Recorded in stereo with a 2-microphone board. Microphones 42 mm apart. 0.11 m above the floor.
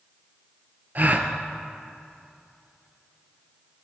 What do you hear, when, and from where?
0.9 s a gasp: 45° right (ahead or behind), 0.8 m